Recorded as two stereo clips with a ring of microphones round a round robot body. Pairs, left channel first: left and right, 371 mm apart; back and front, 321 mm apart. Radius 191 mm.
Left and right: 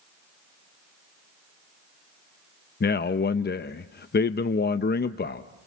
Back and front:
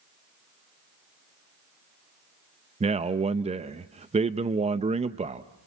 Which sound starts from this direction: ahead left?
A man speaking, at 2.8 s.